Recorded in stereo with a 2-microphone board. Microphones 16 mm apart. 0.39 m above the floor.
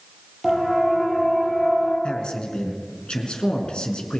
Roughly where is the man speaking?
Left.